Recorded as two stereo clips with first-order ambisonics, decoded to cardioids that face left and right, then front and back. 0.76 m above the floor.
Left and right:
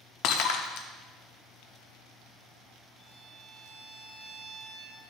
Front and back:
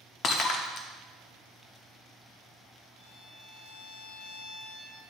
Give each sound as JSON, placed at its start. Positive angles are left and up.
{"t": 0.2, "sound": "breaking glass", "azimuth_deg": 55, "distance_m": 0.7}
{"t": 3.0, "sound": "a violin", "azimuth_deg": -5, "distance_m": 1.1}